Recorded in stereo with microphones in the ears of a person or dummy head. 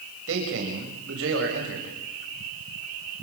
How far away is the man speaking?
About 7.5 m.